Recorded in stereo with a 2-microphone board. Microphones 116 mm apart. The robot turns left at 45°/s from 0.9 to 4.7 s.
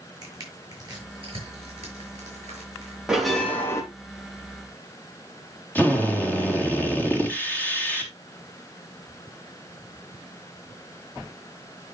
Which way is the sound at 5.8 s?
15° left (ahead or behind).